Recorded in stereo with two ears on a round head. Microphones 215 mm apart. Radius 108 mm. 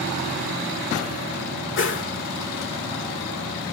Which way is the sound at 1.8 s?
55° left (ahead or behind).